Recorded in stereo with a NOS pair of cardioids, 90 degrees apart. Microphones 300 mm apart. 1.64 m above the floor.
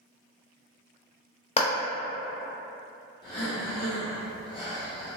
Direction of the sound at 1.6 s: 20° left.